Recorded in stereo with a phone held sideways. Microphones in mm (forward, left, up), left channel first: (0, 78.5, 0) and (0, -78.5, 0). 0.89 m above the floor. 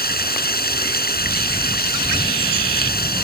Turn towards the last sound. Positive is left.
turn(degrees=85)